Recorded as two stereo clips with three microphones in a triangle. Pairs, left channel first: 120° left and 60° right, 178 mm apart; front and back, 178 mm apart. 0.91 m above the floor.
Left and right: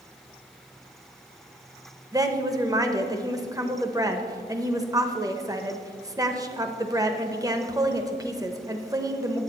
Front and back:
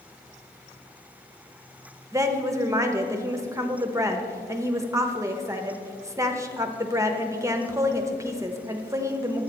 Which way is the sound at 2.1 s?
115° right.